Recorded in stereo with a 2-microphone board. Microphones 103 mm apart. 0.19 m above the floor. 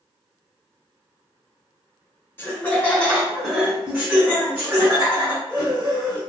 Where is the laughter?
20° left (ahead or behind), 1.7 m; by 6.2 s 45° right (ahead or behind), 2 m.